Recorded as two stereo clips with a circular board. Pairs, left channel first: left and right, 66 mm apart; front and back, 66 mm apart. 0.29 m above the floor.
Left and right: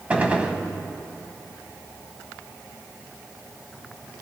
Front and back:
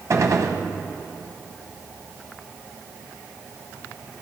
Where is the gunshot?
160° right, 1.1 m.